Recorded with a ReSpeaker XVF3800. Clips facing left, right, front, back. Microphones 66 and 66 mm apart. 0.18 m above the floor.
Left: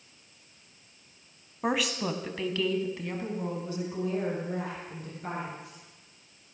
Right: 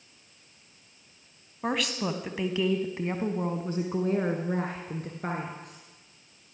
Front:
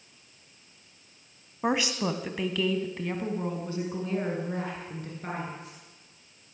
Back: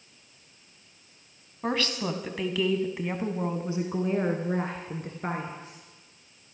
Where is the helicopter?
I don't hear a helicopter.